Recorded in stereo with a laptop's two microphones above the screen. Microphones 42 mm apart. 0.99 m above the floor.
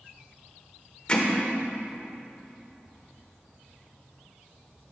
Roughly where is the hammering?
Left.